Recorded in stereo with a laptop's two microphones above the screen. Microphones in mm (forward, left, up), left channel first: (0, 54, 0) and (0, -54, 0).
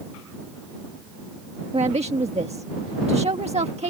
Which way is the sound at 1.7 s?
75° right (ahead or behind).